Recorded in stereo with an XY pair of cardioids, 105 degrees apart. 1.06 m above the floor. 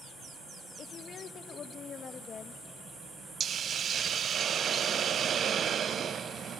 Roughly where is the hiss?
Ahead right.